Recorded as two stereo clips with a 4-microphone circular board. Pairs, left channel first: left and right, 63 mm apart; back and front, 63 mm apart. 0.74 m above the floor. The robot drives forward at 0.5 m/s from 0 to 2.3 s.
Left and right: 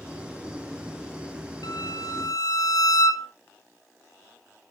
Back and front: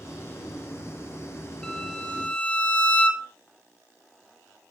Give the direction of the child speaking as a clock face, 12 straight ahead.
I don't hear a child speaking.